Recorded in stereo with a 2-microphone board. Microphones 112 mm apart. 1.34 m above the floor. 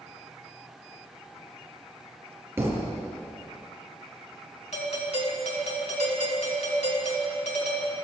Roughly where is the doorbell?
Left.